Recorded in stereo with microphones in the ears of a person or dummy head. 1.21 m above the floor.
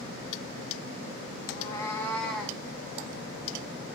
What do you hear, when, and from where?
1.5 s a cat meowing: 35° left (ahead or behind), 1.4 m; by 2.6 s 5° left (ahead or behind), 2.5 m